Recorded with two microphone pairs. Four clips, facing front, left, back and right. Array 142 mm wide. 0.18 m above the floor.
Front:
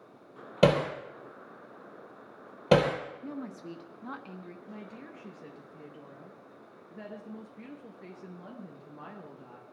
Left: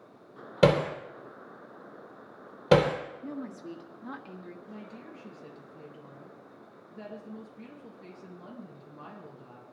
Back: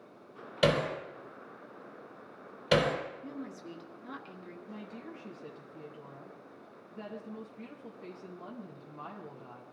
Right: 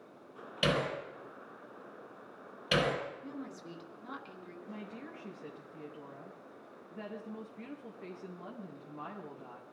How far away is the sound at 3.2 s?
About 1.8 m.